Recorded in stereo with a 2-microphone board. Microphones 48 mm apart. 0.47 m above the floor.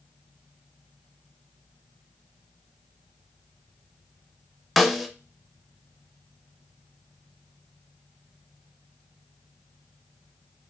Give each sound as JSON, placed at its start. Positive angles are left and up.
{"t": 4.8, "sound": "a snare drum", "side_deg": 0, "distance_m": 0.6}